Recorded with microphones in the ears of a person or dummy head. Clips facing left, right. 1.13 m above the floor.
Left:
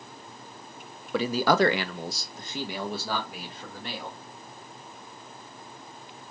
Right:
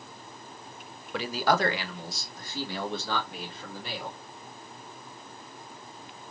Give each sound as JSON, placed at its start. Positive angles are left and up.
{"t": 1.1, "sound": "a man speaking", "side_deg": 65, "distance_m": 0.7}